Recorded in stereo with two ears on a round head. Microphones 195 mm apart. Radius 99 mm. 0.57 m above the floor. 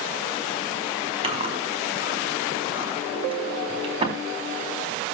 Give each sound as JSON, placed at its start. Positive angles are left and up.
{"t": 1.2, "sound": "chewing", "side_deg": -30, "distance_m": 4.5}